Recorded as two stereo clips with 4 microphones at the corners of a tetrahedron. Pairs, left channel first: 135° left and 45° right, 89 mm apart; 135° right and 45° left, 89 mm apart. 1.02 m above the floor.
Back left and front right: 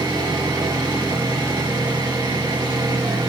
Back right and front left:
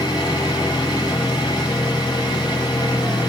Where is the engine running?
95° right, 6 m.